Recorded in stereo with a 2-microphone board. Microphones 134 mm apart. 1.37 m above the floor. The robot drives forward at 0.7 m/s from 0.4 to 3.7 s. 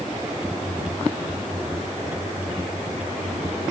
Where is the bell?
I don't hear a bell.